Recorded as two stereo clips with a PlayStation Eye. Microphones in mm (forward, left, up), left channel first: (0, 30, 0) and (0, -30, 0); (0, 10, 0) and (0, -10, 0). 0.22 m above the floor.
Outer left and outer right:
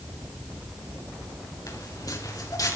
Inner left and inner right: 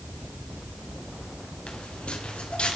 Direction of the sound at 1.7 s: 80° left.